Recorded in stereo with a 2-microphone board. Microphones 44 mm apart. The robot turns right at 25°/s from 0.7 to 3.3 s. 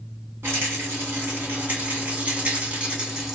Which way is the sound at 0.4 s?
85° right.